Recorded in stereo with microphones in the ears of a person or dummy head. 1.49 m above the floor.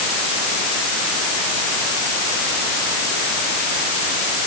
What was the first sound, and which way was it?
Only background noise.